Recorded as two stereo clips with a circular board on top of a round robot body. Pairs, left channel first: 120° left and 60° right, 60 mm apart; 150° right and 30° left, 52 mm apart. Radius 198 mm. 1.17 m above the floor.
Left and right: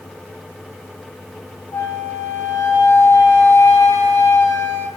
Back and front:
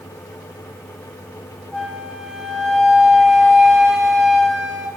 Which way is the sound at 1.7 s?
120° left.